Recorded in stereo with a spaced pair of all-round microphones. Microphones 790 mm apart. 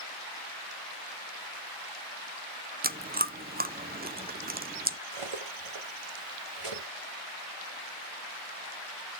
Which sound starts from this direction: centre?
Chewing, at 2.8 s.